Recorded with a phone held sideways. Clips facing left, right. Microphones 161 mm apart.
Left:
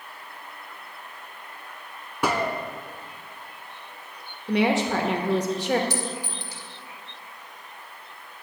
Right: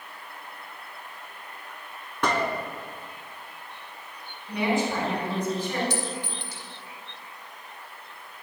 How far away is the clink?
About 1.7 m.